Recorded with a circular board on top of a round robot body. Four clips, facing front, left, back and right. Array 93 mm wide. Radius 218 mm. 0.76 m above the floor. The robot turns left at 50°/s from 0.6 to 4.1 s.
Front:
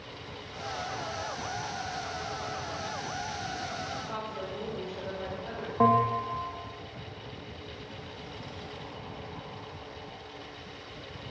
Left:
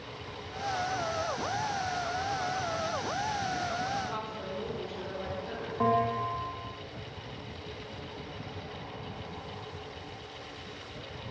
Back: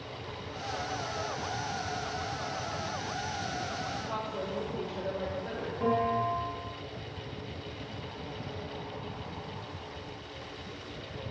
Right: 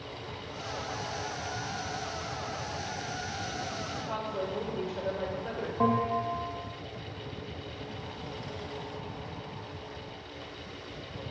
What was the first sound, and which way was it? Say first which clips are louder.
A woman speaking: right 3 dB, back 2 dB; 100° right.